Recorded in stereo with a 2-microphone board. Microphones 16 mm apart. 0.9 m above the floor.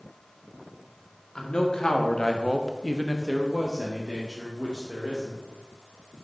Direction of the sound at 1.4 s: 75° left (ahead or behind).